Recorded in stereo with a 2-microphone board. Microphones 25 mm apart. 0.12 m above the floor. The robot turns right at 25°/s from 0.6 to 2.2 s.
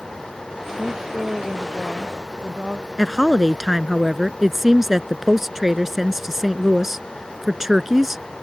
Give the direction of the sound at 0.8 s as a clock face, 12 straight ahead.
5 o'clock.